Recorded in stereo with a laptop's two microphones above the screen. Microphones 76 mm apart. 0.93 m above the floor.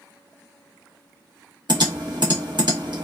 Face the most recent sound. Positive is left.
turn(degrees=-70)  # may be behind; listen again after turning